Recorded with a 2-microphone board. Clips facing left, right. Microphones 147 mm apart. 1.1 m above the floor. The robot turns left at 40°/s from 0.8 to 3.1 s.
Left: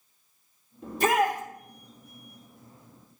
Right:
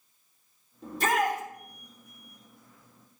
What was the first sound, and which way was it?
A shout, 5° right (ahead or behind).